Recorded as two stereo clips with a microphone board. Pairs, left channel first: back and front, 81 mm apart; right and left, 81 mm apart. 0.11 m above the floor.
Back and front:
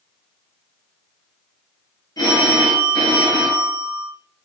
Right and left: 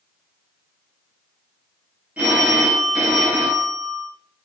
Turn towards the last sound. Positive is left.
turn(degrees=160)